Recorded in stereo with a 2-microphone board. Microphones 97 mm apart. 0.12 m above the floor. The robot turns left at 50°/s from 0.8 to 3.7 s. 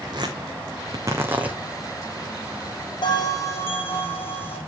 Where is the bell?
60° left, 3.5 m; by 4.6 s 25° left, 3.5 m.